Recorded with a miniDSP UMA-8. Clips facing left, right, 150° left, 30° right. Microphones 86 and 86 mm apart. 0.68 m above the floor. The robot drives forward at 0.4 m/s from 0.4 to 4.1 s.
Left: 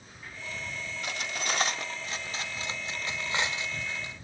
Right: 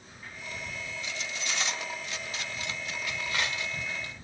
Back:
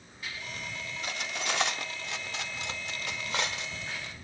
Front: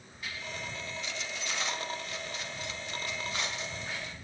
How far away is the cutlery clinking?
About 0.7 m.